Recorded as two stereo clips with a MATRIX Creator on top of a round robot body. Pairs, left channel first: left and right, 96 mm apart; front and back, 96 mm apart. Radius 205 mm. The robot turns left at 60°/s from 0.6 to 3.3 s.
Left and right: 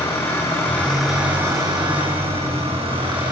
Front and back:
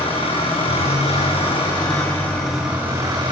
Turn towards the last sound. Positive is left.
turn(degrees=-135)